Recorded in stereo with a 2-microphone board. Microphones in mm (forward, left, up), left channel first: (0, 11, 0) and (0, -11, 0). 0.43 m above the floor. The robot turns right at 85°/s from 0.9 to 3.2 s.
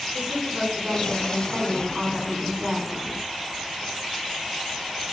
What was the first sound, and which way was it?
A woman speaking, 150° right.